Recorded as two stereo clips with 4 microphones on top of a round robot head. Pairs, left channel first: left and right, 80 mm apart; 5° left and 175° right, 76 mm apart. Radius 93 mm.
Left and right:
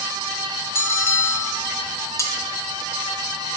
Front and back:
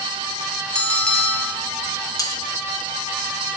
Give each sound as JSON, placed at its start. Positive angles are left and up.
{"t": 0.8, "sound": "a bell", "azimuth_deg": 70, "distance_m": 0.9}
{"t": 2.2, "sound": "cutlery clinking", "azimuth_deg": 40, "distance_m": 1.2}